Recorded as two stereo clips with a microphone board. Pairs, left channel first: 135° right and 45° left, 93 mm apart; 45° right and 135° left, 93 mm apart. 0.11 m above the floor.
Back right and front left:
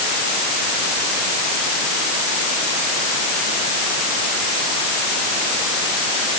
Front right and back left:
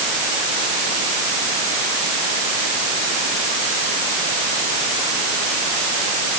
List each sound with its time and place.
Only background noise.